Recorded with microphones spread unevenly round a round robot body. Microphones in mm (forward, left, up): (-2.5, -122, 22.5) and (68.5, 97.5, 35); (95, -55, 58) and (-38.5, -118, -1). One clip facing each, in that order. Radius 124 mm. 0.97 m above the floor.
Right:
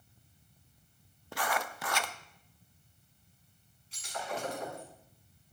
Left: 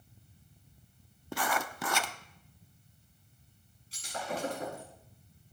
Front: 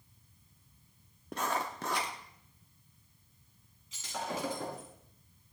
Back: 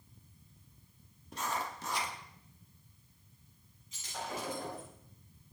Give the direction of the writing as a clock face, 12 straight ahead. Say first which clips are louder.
Left 1 dB, front 3 dB; 10 o'clock.